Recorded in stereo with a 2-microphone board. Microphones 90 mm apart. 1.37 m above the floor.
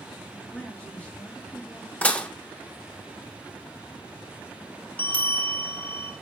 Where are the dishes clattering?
15° left (ahead or behind), 0.6 m.